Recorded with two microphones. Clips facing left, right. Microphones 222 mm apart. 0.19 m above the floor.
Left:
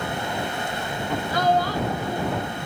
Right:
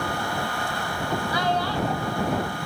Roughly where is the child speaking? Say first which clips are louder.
Left 6 dB; left.